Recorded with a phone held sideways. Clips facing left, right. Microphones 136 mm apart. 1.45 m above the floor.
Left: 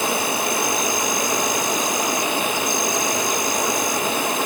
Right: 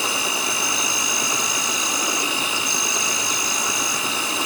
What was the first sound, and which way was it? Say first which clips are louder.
An insect: left 5 dB; 55° left (ahead or behind).